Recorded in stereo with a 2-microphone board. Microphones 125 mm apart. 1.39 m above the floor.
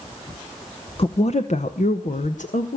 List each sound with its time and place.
1.0 s a woman speaking: 50° left (ahead or behind), 0.9 m; by 2.8 s 85° left, 1.7 m